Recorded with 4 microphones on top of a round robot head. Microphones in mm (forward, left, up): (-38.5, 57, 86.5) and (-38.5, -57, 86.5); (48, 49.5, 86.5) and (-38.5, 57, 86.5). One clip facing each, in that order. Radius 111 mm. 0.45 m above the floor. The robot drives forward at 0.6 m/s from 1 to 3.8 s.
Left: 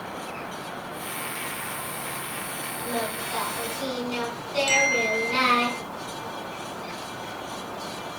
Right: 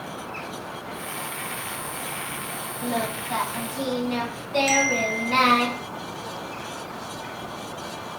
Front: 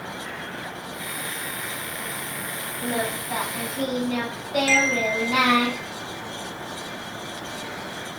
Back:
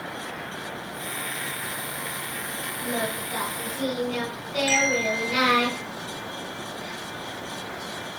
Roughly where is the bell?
Right.